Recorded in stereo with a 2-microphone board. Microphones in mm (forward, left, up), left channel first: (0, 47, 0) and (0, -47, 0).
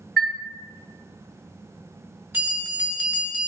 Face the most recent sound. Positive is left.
turn(degrees=-20)  # may be behind; listen again after turning